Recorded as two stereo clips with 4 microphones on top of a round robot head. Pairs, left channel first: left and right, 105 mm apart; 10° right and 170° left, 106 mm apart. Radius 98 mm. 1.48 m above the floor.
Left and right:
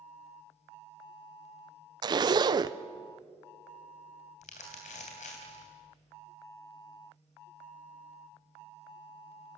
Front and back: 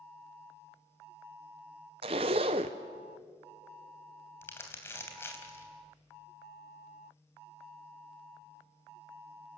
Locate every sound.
2.0 s a zipper: 140° right, 0.6 m
4.4 s crumpling: 60° left, 3 m